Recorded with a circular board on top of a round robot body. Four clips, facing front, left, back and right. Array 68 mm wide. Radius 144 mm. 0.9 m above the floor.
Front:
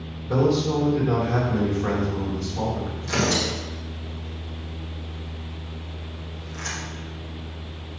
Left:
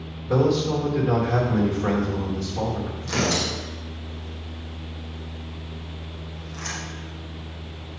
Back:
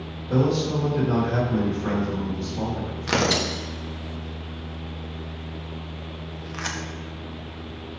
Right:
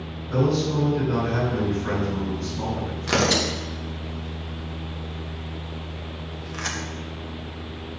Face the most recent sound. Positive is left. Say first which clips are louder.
# right 4 dB, back 1 dB
turn(degrees=-145)